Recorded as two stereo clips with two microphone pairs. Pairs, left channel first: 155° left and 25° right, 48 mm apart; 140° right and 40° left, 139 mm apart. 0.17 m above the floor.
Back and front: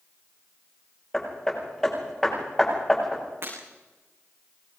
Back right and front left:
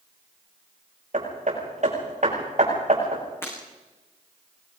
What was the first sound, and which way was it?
Hammering, 80° left.